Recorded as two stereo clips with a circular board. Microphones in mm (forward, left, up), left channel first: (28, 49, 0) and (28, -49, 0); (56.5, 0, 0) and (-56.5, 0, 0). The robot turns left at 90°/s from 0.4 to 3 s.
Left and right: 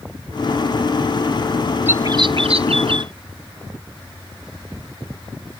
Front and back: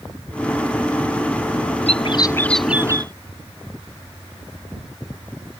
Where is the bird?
20° right; by 3.1 s 125° right.